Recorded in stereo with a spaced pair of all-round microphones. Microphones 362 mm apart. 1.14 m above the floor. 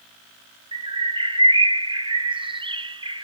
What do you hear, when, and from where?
0.7 s a bird: 15° right (ahead or behind), 0.6 m